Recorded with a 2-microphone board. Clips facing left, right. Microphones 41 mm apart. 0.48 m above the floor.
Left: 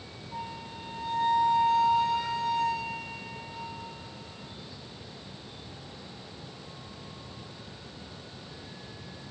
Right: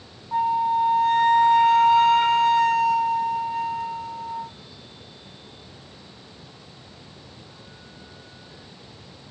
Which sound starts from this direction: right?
A flute, at 0.3 s.